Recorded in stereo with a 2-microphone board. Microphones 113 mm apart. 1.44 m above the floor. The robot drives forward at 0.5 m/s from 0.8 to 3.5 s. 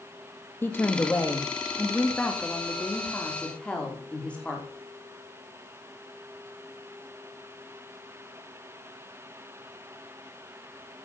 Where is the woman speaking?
20° left (ahead or behind), 1.7 m; by 4.7 s 10° left (ahead or behind), 3 m.